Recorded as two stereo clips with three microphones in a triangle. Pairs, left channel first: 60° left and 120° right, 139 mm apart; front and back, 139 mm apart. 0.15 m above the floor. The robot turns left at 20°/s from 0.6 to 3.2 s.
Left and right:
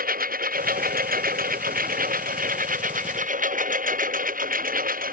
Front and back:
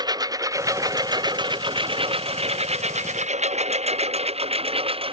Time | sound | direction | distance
0.0 | a lawn mower | 120° right | ?